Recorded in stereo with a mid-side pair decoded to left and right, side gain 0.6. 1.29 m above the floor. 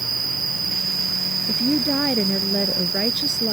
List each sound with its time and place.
0.0 s an insect: 30° right
1.5 s a woman speaking: 5° right